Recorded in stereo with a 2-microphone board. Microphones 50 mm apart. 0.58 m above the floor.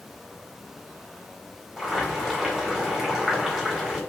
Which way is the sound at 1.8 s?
5° right (ahead or behind).